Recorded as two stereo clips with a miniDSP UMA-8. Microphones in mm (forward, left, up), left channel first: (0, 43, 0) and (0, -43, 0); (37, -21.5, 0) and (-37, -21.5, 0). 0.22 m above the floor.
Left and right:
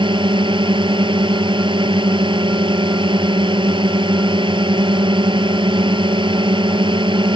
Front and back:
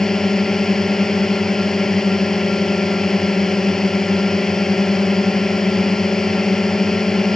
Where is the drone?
85° right.